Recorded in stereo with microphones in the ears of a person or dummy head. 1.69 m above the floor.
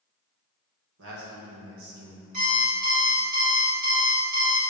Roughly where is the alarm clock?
Right.